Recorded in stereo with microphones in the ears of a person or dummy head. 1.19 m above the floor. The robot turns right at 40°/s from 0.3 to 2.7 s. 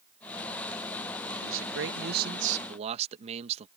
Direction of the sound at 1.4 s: 90° right.